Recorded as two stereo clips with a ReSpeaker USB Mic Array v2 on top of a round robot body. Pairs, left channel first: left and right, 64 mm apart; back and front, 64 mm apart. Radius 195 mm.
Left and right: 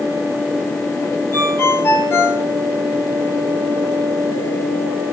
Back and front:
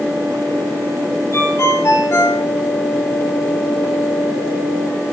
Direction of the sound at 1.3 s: 135° left.